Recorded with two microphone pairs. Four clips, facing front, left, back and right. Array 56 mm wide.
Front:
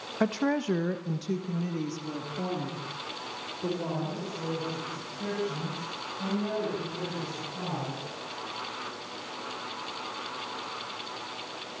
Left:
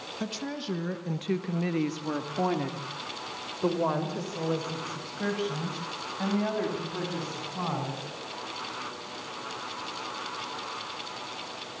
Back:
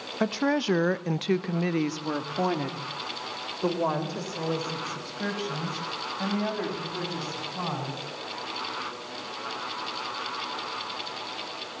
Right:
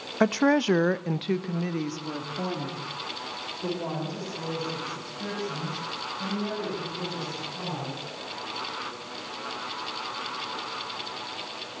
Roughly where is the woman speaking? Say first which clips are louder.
Right 14 dB, back 2 dB; right.